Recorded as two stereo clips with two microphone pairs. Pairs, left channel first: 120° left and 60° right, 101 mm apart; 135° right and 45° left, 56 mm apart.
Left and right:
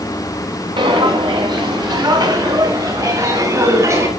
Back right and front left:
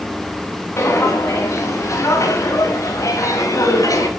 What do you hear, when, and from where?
0.8 s footsteps: 95° right, 5.5 m; by 4.1 s 120° right, 6.5 m